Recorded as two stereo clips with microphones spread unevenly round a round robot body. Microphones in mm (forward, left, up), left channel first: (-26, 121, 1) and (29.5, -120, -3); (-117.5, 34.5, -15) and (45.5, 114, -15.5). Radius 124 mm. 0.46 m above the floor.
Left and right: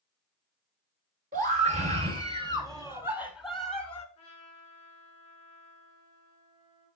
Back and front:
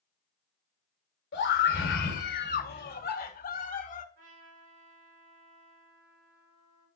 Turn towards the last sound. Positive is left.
turn(degrees=35)